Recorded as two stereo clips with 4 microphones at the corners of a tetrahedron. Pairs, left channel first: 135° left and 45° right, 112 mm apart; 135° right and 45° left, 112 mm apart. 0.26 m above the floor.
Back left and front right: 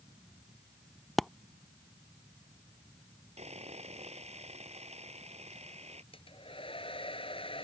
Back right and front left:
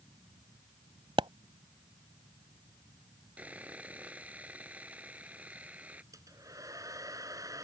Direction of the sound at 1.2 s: 45° left.